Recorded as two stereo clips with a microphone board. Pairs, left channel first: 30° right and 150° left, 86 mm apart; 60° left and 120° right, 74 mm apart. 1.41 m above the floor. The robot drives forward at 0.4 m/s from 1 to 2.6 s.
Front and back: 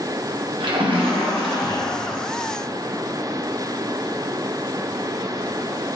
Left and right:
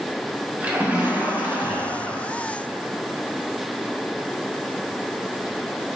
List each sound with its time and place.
0.6 s a splash: 170° left, 1.4 m